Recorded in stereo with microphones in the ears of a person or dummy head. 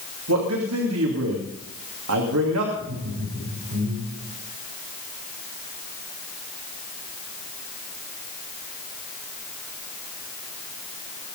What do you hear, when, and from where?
0.3 s a man speaking: 85° right, 2.5 m
2.8 s laughter: 70° right (ahead or behind), 6.5 m